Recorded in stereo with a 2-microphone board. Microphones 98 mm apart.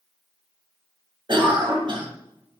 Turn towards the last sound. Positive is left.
turn(degrees=-55)  # may be behind; listen again after turning